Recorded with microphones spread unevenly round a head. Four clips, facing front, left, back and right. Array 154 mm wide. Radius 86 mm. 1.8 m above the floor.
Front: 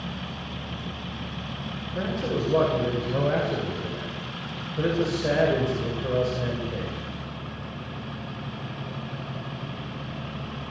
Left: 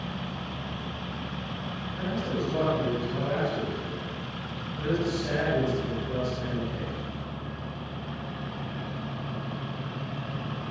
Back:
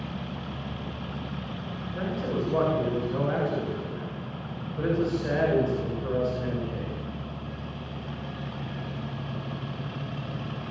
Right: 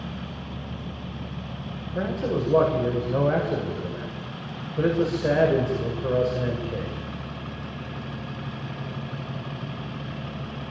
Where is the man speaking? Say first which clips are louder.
Right 5 dB, front 2 dB; 75° right, 8 m.